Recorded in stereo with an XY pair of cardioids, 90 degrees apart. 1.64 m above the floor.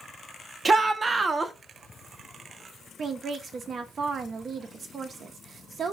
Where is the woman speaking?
55° right, 0.6 m.